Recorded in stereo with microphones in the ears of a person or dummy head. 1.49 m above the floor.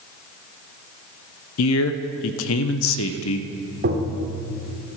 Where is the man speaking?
75° left (ahead or behind), 0.9 m.